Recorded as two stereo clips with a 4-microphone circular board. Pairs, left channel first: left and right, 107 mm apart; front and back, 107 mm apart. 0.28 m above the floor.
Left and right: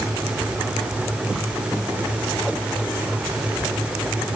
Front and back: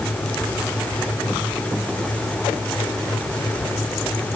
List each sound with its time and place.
Only background noise.